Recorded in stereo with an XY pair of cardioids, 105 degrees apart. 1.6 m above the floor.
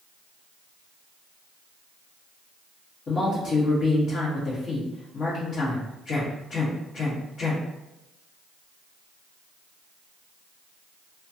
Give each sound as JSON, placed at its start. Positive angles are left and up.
{"t": 3.1, "sound": "a man speaking", "azimuth_deg": 55, "distance_m": 1.4}